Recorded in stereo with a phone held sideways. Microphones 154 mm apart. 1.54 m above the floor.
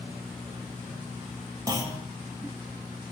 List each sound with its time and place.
1.7 s a clunk: 25° right (ahead or behind), 0.6 m